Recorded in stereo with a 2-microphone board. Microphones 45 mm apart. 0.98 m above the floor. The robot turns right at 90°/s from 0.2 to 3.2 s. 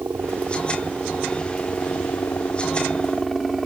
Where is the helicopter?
90° right; by 3.7 s straight behind.